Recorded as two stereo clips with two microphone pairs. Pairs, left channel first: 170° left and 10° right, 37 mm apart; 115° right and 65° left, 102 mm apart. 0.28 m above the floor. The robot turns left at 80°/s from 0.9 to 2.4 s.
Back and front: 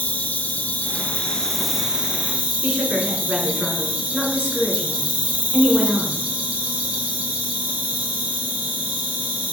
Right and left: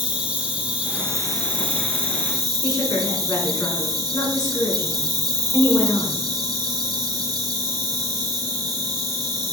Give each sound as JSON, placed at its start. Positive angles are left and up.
{"t": 0.0, "sound": "an insect", "azimuth_deg": 140, "distance_m": 1.8}
{"t": 2.6, "sound": "a woman speaking", "azimuth_deg": -70, "distance_m": 3.0}